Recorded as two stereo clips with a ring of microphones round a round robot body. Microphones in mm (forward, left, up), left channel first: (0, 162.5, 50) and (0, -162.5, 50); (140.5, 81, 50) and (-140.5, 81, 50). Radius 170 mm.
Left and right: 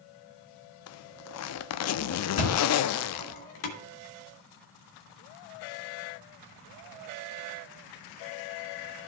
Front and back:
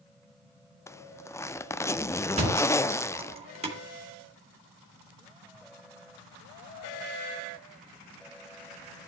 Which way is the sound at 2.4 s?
110° left.